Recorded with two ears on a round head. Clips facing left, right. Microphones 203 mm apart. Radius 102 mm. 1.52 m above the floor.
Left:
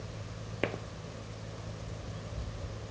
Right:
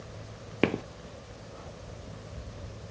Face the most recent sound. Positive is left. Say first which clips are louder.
# right 8 dB
turn(degrees=-60)  # may be behind; listen again after turning